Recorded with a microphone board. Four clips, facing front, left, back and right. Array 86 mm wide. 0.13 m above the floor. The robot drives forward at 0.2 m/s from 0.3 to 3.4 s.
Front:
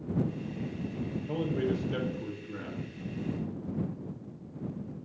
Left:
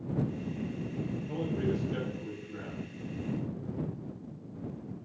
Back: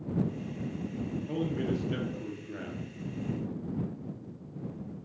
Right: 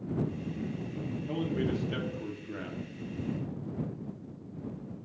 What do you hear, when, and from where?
1.3 s a man speaking: 110° right, 2.5 m; by 2.9 s 120° right, 2.5 m